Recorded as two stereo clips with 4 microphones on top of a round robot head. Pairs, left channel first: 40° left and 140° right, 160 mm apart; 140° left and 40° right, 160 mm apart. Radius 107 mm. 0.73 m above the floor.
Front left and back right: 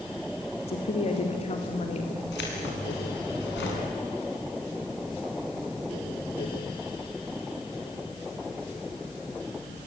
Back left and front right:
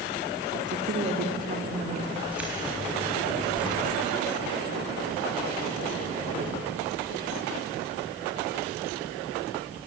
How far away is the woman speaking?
About 2.5 m.